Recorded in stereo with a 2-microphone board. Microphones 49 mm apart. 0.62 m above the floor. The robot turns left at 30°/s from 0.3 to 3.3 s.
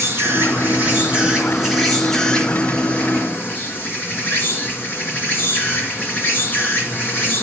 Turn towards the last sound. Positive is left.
turn(degrees=140)